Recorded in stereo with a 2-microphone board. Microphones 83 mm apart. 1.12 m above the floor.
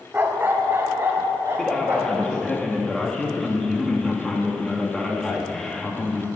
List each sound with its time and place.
0.1 s a dog barking: 25° right (ahead or behind), 0.8 m; by 2.2 s 30° right (ahead or behind), 3 m
1.6 s a man speaking: 5° left (ahead or behind), 1.4 m